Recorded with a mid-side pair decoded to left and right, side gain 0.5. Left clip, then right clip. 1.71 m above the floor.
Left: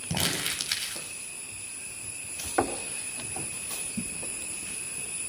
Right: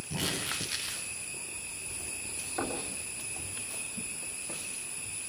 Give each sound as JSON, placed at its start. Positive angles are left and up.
{"t": 0.1, "sound": "crumpling", "azimuth_deg": 65, "distance_m": 10.0}
{"t": 2.6, "sound": "knocking", "azimuth_deg": 60, "distance_m": 3.0}